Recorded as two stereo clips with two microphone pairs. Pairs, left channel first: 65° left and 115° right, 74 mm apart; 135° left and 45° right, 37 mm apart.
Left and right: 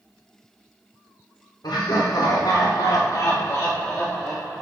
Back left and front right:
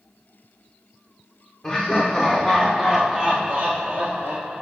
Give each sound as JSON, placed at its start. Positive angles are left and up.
{"t": 1.6, "sound": "laughter", "azimuth_deg": 75, "distance_m": 1.1}